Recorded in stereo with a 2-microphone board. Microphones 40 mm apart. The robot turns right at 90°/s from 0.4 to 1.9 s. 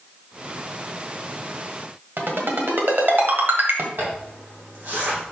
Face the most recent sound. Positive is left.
turn(degrees=-55)  # may be behind; listen again after turning